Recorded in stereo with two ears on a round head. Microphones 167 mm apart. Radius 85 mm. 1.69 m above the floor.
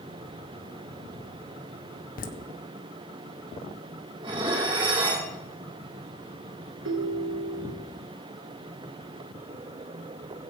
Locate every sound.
2.2 s laughter: 50° left (ahead or behind), 1.6 m
4.2 s dishes clattering: 30° right (ahead or behind), 3 m
6.8 s a ringtone: 65° right (ahead or behind), 1.9 m